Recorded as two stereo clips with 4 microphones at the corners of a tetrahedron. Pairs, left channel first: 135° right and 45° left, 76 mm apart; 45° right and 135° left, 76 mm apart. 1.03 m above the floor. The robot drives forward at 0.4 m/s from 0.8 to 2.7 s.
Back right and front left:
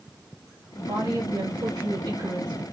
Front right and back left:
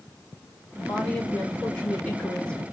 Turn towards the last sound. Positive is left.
turn(degrees=35)